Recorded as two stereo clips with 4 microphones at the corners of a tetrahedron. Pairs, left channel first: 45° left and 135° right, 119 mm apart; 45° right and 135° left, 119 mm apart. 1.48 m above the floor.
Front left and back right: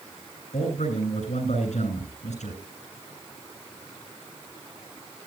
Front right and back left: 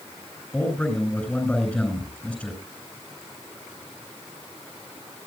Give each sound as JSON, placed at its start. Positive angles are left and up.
{"t": 0.5, "sound": "a man speaking", "azimuth_deg": 35, "distance_m": 9.5}